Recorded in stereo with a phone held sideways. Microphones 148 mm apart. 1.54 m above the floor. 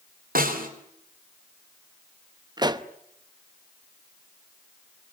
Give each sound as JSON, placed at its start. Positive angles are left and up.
{"t": 0.3, "sound": "a snare drum", "side_deg": -80, "distance_m": 4.0}
{"t": 2.6, "sound": "a pop", "side_deg": -30, "distance_m": 0.9}